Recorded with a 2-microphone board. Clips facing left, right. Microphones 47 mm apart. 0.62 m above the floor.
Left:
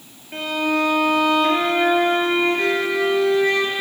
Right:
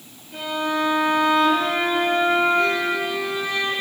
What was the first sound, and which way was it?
A violin, 55° left (ahead or behind).